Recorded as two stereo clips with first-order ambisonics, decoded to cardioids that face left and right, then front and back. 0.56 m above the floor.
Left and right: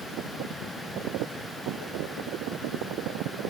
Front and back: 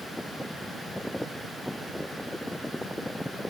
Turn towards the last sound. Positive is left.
No sound to turn to.